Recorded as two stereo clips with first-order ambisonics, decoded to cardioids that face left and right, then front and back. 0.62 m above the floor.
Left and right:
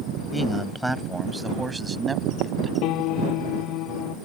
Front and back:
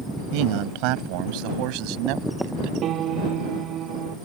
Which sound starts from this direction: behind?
A man speaking, at 0.3 s.